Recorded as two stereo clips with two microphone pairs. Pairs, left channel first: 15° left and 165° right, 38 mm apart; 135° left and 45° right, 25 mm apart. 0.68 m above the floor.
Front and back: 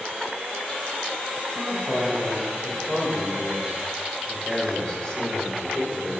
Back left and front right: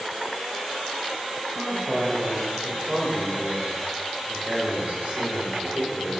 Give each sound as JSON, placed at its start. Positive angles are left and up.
{"t": 1.6, "sound": "a man speaking", "azimuth_deg": -5, "distance_m": 3.0}